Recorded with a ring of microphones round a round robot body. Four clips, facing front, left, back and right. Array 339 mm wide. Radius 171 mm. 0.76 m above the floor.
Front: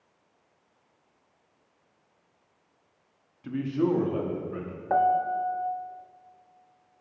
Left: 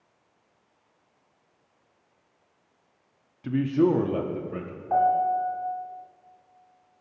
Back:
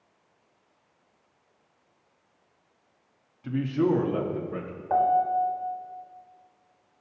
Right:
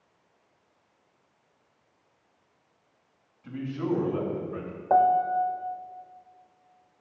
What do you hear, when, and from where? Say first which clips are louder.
3.4 s a man speaking: left 8 dB, back 2 dB; 90° left, 1.2 m; by 4.8 s 135° left, 1.3 m
4.9 s a piano: right 1 dB, back 1 dB; 65° right, 0.6 m